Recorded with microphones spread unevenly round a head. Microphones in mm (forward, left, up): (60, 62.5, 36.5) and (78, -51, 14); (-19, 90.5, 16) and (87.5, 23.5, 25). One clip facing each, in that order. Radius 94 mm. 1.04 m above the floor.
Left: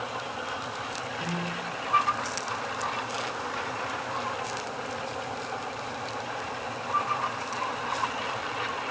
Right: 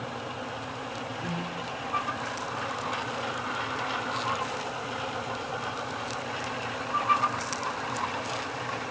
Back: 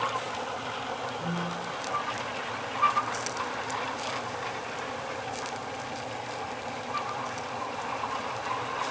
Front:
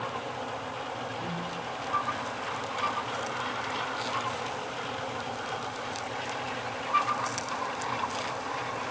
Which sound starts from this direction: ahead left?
A piano, at 1.2 s.